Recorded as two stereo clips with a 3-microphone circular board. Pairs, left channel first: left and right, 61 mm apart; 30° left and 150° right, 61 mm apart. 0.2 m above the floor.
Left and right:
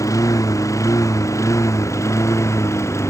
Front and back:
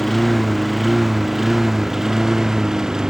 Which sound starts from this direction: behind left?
A lawn mower, at 0.0 s.